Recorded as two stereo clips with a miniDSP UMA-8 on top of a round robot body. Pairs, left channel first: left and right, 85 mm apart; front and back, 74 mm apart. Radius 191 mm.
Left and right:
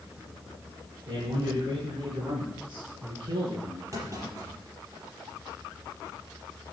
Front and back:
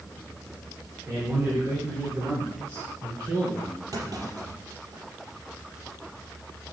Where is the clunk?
140° right, 5 m.